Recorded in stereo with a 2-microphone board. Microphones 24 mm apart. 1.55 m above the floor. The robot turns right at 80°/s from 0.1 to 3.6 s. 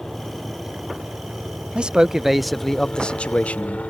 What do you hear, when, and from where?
0.0 s a helicopter: 20° left (ahead or behind); by 3.9 s 75° left (ahead or behind)
1.8 s a man speaking: 55° right; by 3.8 s 90° left